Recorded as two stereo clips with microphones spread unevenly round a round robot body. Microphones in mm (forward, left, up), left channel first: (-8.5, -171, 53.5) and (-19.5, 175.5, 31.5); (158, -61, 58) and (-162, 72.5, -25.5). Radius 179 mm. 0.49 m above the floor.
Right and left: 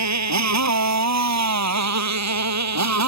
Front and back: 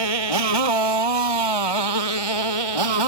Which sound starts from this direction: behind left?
A motorcycle, at 0.0 s.